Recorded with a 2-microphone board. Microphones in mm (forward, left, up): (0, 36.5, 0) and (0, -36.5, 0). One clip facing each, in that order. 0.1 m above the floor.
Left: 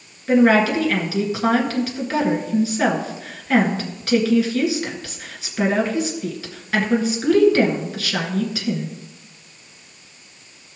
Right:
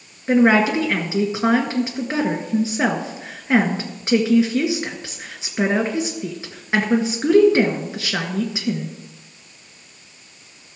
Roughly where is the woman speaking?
Right.